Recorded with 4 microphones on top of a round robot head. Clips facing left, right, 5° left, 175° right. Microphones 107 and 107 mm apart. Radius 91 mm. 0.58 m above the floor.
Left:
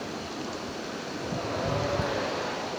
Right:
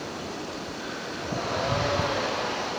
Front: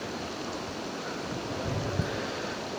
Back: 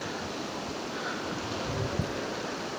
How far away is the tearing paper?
About 1.7 m.